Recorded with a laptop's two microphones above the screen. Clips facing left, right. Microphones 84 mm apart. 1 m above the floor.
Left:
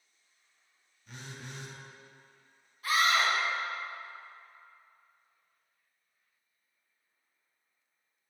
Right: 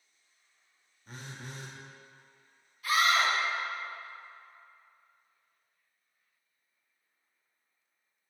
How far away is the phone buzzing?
About 0.5 m.